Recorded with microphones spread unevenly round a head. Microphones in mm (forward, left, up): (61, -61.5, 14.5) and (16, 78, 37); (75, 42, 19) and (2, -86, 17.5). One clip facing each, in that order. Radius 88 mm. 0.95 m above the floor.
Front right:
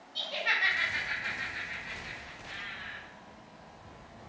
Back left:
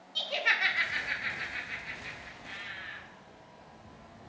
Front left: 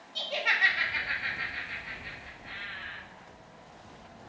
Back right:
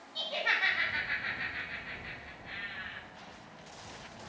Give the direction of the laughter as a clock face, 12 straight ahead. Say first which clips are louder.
Back left 2 dB, front left 2 dB; 8 o'clock.